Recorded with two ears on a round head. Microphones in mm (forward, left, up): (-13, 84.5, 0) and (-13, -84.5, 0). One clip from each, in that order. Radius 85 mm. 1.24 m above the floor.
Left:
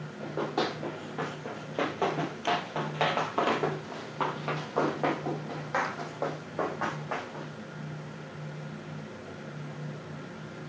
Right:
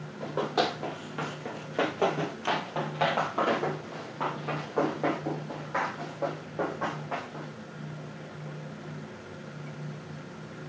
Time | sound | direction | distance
0.2 | running footsteps | 35° right (ahead or behind) | 1.6 m